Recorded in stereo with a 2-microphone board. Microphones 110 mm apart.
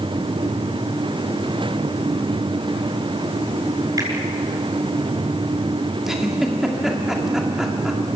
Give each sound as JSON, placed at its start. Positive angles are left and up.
{"t": 4.0, "sound": "a finger snap", "side_deg": -35, "distance_m": 7.5}
{"t": 6.0, "sound": "a giggle", "side_deg": -5, "distance_m": 2.5}